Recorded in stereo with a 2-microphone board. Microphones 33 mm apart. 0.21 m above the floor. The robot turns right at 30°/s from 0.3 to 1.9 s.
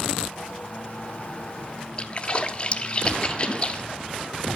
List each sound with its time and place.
2.0 s a splash: 30° left (ahead or behind), 0.5 m